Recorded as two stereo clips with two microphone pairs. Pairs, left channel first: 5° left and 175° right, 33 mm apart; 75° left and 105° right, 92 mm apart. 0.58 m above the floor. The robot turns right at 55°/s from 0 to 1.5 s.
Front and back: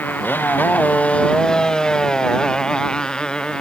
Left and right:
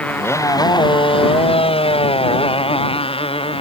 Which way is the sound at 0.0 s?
Straight ahead.